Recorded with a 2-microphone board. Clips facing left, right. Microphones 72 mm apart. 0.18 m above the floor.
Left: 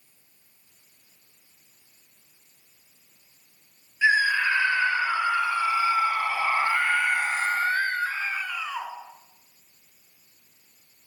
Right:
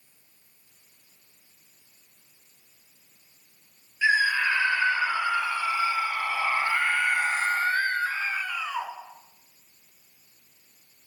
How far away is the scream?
About 3.5 m.